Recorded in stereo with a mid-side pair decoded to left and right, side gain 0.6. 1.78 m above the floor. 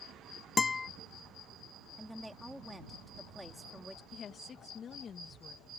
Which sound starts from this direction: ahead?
A woman speaking, at 2.0 s.